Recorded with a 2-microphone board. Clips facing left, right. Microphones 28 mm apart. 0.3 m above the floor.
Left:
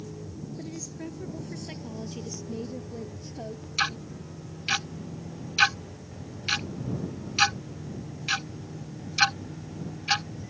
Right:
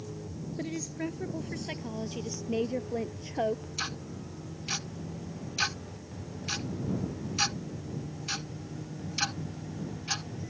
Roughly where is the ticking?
Left.